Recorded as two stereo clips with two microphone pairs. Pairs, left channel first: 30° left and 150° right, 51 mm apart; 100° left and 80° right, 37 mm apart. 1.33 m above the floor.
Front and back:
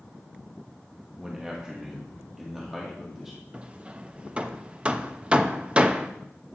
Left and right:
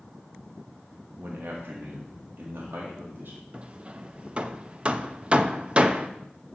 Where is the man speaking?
75° right, 1.3 m; by 3.4 s 65° right, 2.5 m.